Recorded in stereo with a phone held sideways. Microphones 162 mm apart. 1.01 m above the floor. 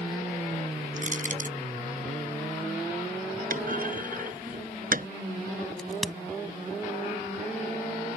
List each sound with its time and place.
1.0 s crushing: 55° right (ahead or behind)
3.5 s a clunk: 60° right (ahead or behind)
5.8 s a crack: centre (ahead or behind)